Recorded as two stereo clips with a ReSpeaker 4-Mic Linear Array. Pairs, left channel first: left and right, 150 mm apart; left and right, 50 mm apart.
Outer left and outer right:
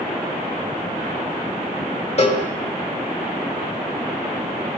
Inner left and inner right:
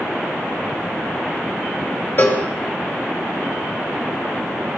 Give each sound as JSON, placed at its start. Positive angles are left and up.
{"t": 2.2, "sound": "a cowbell", "side_deg": 45, "distance_m": 2.0}